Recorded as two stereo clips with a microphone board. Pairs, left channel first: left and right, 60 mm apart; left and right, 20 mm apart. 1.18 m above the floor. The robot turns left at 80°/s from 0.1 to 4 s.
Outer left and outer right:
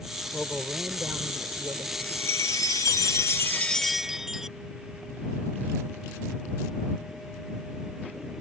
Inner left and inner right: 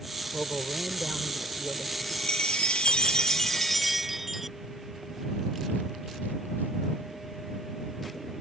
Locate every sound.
0.3 s a man speaking: 25° left; by 1.9 s 100° right
2.0 s a chime: 155° left; by 4.6 s 10° right